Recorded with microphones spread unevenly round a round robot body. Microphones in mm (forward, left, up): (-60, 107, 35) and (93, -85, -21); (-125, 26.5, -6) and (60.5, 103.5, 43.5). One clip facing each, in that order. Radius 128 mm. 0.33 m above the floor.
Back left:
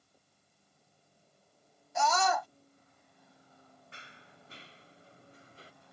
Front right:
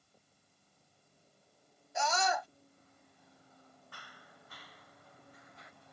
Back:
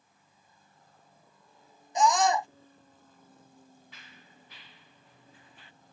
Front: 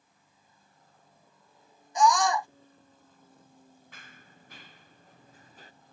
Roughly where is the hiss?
I don't hear a hiss.